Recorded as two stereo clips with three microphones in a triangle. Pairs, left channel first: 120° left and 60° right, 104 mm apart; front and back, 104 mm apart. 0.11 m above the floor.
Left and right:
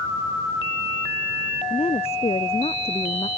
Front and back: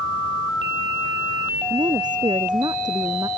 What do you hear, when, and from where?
1.7 s a woman speaking: 140° left; by 3.3 s 130° left